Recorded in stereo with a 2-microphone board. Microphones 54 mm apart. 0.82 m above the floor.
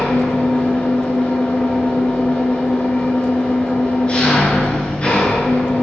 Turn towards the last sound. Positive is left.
turn(degrees=20)  # may be behind; listen again after turning